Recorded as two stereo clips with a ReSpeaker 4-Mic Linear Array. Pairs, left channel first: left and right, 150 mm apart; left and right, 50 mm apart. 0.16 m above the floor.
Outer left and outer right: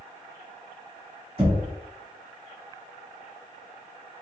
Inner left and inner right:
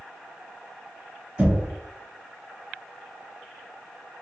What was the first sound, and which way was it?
Knocking, 30° right (ahead or behind).